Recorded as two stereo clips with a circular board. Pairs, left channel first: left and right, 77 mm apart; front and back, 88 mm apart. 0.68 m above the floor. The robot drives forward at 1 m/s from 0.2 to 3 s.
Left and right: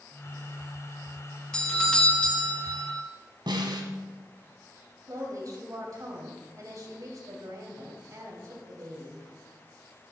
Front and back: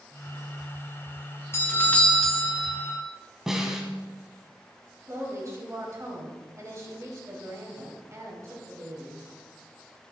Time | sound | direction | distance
1.5 | a doorbell | 20° left | 1.7 m
3.5 | a snare drum | 95° right | 1.6 m
5.1 | a woman speaking | 125° right | 3 m